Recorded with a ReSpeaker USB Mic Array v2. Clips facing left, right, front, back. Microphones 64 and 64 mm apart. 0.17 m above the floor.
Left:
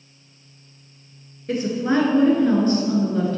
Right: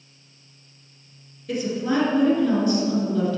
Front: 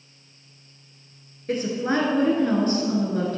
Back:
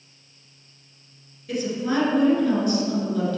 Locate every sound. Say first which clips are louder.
1.5 s a woman speaking: left 3 dB, front 1 dB; 40° left, 2 m